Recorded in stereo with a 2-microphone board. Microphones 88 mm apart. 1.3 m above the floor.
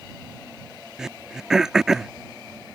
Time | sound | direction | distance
1.0 | throat clearing | 5° right (ahead or behind) | ?